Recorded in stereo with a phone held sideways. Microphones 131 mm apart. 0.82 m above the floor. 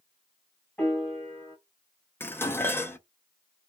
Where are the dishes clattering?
15° left (ahead or behind), 0.5 m.